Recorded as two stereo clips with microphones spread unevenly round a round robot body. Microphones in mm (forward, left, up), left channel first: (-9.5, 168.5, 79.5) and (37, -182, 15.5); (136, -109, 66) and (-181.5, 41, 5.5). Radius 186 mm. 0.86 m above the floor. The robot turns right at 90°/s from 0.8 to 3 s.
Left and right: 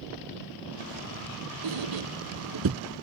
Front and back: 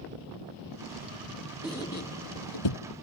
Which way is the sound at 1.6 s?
115° right.